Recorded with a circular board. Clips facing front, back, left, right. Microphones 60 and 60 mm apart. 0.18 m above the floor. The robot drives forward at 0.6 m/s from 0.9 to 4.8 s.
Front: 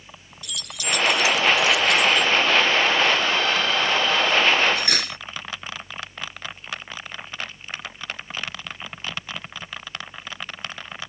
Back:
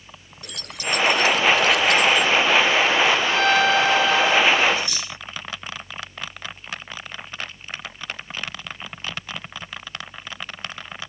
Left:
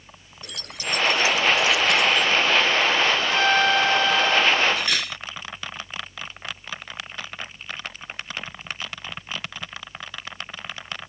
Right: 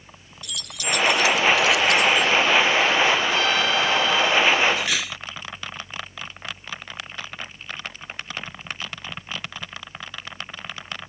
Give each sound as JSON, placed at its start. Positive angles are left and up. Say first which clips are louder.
{"t": 0.4, "sound": "keys jangling", "louder": "back 1 dB, right 2 dB", "azimuth_deg": 135}
{"t": 3.3, "sound": "a violin", "louder": "back 5 dB, left 2 dB", "azimuth_deg": 140}
{"t": 4.8, "sound": "cutlery clinking", "louder": "front 3 dB, even", "azimuth_deg": -5}